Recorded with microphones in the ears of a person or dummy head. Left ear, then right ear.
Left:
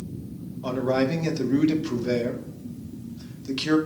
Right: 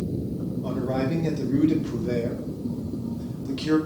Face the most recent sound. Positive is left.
turn(degrees=30)  # may be behind; listen again after turning